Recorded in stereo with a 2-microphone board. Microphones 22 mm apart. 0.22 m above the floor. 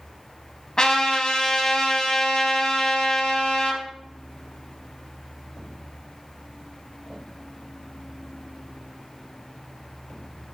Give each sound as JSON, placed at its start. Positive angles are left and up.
{"t": 0.8, "sound": "a trumpet", "side_deg": 40, "distance_m": 0.6}